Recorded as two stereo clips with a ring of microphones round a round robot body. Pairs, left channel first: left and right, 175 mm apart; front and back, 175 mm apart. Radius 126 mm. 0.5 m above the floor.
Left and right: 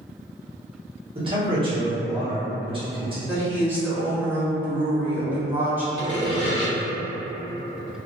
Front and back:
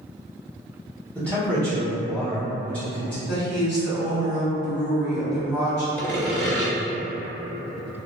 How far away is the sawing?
About 1.8 m.